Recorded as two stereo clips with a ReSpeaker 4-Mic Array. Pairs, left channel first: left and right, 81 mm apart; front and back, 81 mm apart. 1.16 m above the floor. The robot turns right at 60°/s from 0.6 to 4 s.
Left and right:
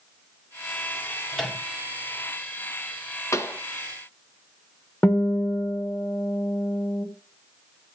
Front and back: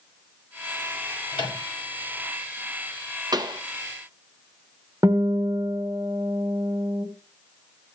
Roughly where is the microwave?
Ahead.